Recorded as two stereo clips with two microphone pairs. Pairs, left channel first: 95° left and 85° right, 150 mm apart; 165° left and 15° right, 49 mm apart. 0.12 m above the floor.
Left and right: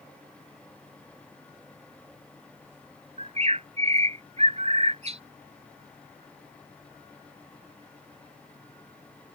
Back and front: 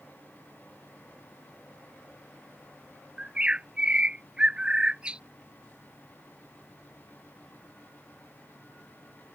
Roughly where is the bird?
Right.